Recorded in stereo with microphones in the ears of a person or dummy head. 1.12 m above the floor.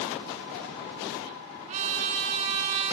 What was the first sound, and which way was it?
A trumpet, 45° right (ahead or behind).